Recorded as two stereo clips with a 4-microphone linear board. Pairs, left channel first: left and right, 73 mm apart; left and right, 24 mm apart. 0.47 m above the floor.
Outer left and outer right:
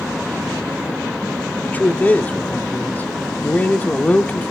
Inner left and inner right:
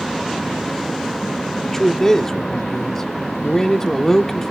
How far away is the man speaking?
About 0.7 m.